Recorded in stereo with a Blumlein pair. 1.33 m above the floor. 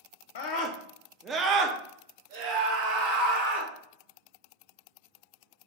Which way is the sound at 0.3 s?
50° left.